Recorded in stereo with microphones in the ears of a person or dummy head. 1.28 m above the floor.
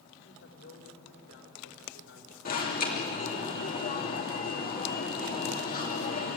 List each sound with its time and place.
0.2 s a woman speaking: 65° left (ahead or behind), 5 m
2.5 s an alarm: 45° left (ahead or behind), 2.5 m